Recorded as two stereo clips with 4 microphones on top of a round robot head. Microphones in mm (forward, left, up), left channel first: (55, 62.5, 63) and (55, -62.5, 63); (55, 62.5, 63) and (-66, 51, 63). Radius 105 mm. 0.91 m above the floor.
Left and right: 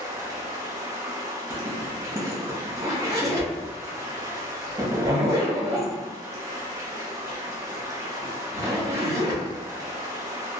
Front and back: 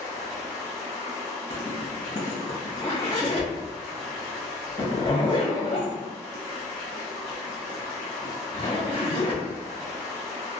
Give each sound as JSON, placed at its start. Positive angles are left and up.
{"t": 0.0, "sound": "running water", "azimuth_deg": -25, "distance_m": 0.7}
{"t": 1.5, "sound": "a zipper", "azimuth_deg": -35, "distance_m": 1.4}